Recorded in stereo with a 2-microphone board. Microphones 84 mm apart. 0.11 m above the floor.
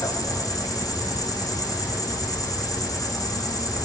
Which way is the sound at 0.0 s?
45° left (ahead or behind).